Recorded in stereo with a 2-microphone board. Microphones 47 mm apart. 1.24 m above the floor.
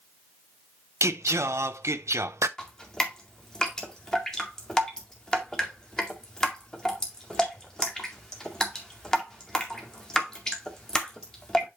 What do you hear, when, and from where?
1.0 s singing: 85° right, 0.6 m
2.6 s dripping: 15° left (ahead or behind), 2.0 m